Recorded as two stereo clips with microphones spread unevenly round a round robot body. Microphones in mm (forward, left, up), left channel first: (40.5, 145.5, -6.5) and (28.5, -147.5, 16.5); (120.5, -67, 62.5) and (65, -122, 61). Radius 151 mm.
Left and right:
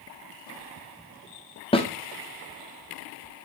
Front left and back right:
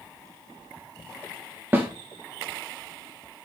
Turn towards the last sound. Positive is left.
turn(degrees=155)